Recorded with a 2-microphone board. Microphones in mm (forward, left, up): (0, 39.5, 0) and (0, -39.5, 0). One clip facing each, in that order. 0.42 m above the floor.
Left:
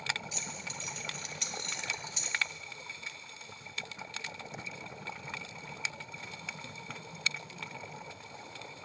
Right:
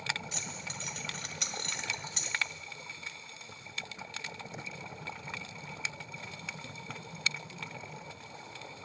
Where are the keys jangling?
65° right (ahead or behind), 1.2 m.